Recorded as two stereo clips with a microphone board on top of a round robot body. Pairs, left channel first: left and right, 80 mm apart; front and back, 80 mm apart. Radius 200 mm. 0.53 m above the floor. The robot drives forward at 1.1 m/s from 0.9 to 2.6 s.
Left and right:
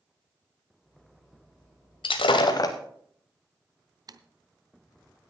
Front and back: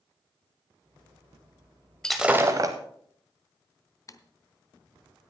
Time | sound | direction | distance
2.0 | breaking glass | 80° left | 0.6 m
4.1 | typing on a keyboard | 50° right | 0.7 m